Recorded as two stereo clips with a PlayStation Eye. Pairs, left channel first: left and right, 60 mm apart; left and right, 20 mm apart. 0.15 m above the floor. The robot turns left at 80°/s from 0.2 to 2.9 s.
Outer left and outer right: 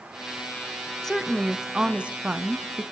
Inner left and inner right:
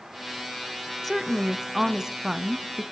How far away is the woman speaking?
About 1.0 m.